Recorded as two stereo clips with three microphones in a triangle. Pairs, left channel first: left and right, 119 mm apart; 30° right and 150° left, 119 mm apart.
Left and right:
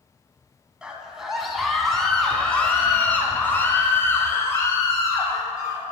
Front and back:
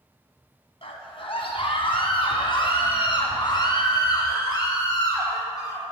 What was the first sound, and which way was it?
A scream, 10° right.